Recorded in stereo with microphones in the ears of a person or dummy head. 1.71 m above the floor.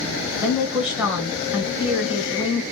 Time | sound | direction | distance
0.4 | a woman speaking | 10° right (ahead or behind) | 1.4 m